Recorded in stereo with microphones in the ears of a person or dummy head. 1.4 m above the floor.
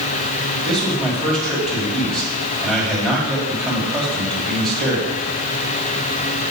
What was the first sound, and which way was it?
A man speaking, 5° left (ahead or behind).